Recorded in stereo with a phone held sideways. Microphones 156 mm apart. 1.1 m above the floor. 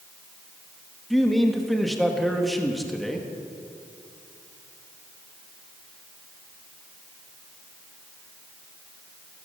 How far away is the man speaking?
About 1.8 m.